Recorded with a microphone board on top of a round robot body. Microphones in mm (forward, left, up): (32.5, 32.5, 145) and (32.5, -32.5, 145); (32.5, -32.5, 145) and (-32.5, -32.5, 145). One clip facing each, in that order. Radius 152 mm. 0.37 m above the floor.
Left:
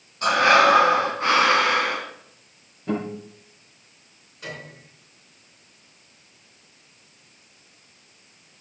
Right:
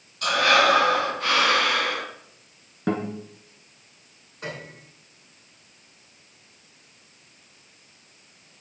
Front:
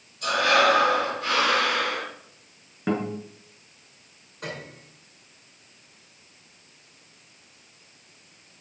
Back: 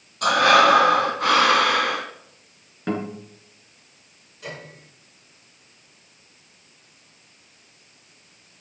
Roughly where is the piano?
Ahead right.